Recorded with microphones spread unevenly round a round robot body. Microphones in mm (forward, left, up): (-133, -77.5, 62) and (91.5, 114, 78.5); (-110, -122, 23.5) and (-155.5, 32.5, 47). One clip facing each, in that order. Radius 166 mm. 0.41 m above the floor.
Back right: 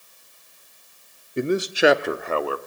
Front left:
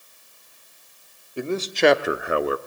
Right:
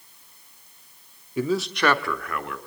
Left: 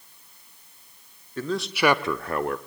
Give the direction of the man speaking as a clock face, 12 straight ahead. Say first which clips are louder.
Back right 2 dB, right 2 dB; 4 o'clock.